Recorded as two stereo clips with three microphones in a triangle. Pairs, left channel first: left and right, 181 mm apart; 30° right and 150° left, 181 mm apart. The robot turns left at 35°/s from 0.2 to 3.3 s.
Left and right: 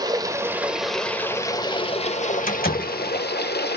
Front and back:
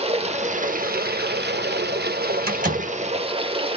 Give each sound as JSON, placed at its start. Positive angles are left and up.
{"t": 0.0, "sound": "running water", "azimuth_deg": -155, "distance_m": 0.9}
{"t": 2.5, "sound": "a door slam", "azimuth_deg": 120, "distance_m": 2.5}